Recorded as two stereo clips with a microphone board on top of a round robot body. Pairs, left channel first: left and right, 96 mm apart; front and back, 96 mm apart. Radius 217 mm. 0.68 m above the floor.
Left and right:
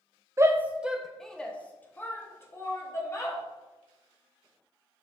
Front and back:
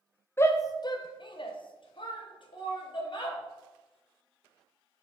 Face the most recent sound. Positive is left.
turn(degrees=30)